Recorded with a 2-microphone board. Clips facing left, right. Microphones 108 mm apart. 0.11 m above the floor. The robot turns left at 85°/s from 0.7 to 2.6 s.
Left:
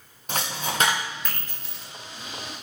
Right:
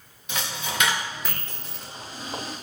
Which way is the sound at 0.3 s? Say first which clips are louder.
Left 2 dB; 45° left (ahead or behind).